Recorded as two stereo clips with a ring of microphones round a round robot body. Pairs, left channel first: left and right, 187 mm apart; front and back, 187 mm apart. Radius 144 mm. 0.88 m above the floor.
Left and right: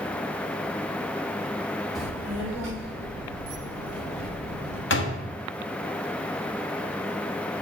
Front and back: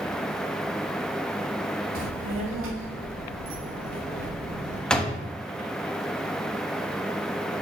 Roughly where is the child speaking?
Behind.